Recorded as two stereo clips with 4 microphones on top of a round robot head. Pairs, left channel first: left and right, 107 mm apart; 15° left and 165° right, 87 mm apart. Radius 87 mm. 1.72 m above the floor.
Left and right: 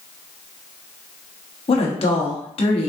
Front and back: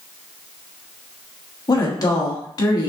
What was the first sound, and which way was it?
A woman speaking, 55° left.